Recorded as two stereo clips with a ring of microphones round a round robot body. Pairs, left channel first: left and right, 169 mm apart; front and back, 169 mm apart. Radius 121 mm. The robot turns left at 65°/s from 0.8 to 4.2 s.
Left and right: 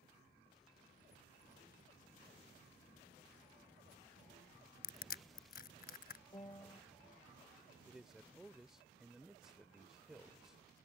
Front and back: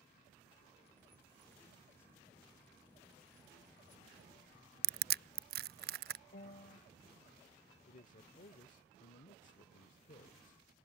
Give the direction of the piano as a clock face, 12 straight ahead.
11 o'clock.